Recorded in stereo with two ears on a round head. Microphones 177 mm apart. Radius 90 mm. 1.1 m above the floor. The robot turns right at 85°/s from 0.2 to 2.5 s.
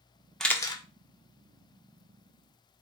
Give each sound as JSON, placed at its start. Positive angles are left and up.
{"t": 0.4, "sound": "a camera shutter", "side_deg": 0, "distance_m": 0.6}